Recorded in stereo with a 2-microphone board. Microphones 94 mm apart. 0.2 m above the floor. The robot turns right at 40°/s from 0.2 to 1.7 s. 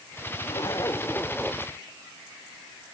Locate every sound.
0.5 s a zipper: 130° left; by 1.7 s straight behind